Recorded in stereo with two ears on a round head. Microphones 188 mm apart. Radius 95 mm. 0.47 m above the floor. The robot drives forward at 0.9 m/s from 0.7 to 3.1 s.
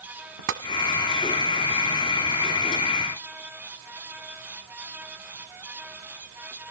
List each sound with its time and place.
0.5 s tapping: 70° right (ahead or behind), 1.1 m